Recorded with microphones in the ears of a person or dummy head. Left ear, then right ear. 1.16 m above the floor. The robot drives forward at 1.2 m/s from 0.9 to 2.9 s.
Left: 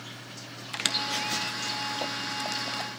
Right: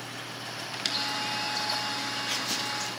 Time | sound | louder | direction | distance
0.7 | a squeak | left 2 dB | 35° left (ahead or behind) | 0.8 m